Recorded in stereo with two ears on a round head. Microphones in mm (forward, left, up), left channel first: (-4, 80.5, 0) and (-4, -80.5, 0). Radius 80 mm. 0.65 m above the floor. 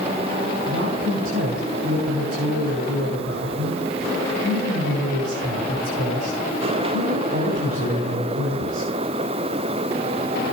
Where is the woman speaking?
85° right, 8 m.